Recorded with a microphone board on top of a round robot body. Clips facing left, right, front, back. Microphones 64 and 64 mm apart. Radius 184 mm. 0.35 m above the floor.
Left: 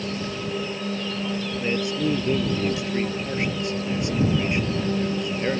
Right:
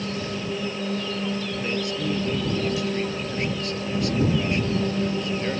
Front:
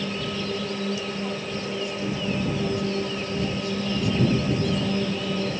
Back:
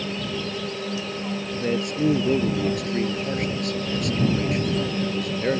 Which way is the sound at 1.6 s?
155° left.